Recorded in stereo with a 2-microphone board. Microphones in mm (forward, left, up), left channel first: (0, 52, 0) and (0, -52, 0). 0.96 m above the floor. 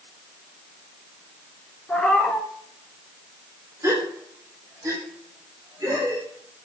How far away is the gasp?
About 2 m.